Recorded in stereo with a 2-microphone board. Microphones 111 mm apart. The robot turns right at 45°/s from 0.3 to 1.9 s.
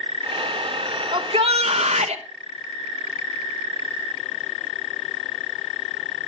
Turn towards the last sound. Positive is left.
turn(degrees=-100)